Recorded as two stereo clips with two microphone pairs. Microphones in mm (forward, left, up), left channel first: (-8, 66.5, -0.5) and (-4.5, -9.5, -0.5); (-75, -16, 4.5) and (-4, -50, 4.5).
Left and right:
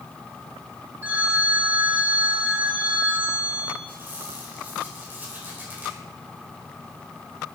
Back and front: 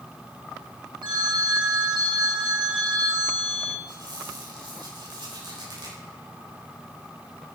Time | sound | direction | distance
1.0 | a phone ringing | 20° right | 2 m
3.9 | a squeak | 20° right | 4 m